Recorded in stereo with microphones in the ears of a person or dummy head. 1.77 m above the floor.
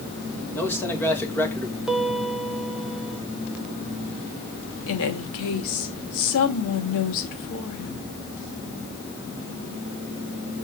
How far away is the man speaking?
About 3 m.